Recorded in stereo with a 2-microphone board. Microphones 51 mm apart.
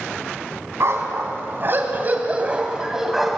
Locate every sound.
0.8 s a dog barking: 65° right (ahead or behind), 3 m; by 3.4 s centre (ahead or behind), 2.5 m